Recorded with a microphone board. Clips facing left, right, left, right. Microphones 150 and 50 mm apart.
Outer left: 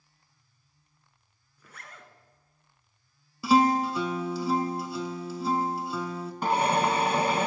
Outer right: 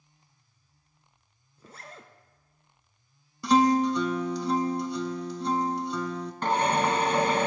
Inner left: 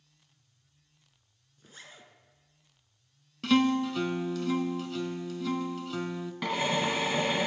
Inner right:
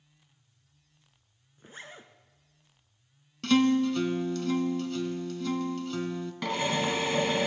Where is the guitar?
5° left (ahead or behind), 0.6 m.